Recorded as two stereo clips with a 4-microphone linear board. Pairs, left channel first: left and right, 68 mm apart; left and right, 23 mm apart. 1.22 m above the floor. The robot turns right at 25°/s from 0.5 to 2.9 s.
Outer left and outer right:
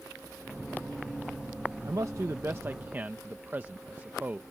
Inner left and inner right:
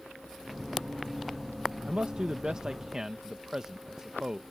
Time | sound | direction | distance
1.9 | a man speaking | 55° right (ahead or behind) | ?